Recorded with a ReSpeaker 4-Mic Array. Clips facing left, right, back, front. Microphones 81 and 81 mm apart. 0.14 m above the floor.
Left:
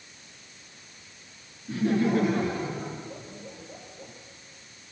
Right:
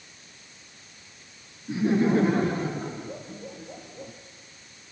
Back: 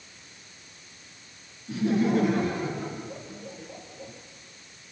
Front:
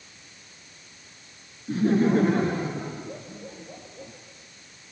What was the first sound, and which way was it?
Laughter, 25° right.